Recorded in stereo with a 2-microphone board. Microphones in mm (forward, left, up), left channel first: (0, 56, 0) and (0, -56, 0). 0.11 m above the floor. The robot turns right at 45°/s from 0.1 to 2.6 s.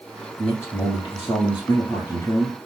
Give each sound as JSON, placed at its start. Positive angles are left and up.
{"t": 0.4, "sound": "a man speaking", "azimuth_deg": 45, "distance_m": 1.5}